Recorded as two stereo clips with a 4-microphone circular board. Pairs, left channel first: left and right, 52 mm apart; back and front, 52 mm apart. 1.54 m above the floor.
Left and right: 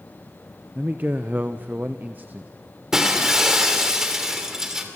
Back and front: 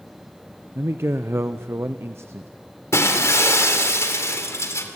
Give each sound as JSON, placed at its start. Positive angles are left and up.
{"t": 0.8, "sound": "a man speaking", "azimuth_deg": -35, "distance_m": 0.6}
{"t": 2.9, "sound": "breaking glass", "azimuth_deg": -170, "distance_m": 2.5}